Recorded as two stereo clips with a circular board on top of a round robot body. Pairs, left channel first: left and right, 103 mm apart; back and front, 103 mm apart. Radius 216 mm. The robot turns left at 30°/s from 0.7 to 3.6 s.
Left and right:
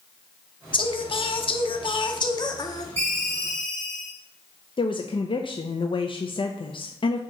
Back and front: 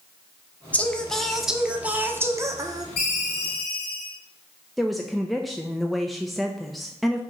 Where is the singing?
110° left, 1.0 m; by 2.9 s 45° left, 1.0 m.